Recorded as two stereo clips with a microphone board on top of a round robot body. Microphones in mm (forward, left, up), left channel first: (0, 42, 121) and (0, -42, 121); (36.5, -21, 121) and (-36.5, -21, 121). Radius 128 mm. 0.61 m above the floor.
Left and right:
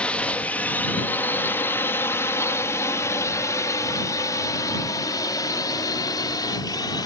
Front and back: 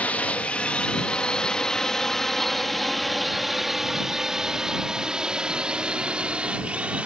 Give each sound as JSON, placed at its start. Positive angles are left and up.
{"t": 0.0, "sound": "a drone", "azimuth_deg": 35}